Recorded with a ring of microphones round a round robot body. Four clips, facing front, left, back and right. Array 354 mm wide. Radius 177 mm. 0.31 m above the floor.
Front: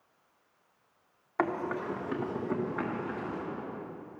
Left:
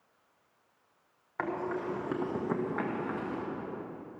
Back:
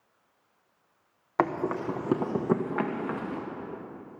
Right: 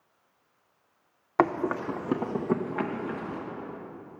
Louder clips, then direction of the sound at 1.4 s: Right 8 dB, back 4 dB; 115° right.